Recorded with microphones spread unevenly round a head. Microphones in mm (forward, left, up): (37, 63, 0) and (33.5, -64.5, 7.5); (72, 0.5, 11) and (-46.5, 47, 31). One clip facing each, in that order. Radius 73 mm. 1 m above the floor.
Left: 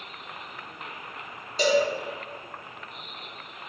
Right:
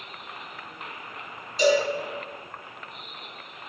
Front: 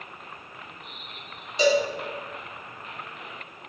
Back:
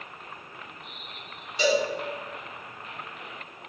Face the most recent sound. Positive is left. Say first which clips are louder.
# right 1 dB, front 3 dB
turn(degrees=55)